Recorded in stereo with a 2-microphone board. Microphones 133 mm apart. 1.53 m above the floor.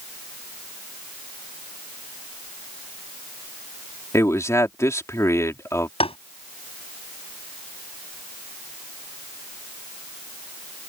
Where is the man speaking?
20° left (ahead or behind).